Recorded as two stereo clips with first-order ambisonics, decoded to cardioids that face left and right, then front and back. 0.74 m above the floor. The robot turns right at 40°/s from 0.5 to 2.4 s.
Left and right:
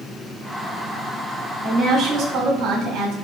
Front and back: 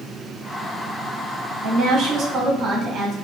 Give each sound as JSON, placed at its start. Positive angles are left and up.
{"t": 1.6, "sound": "a woman speaking", "azimuth_deg": -155, "distance_m": 1.3}